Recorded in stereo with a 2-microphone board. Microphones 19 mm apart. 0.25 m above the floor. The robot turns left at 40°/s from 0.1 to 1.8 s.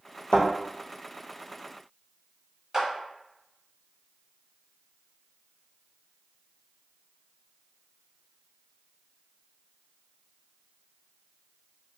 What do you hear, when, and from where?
0.3 s a thud: 80° left, 1.5 m; by 0.5 s 85° left, 1.5 m
2.7 s a clap: 20° right (ahead or behind), 1.0 m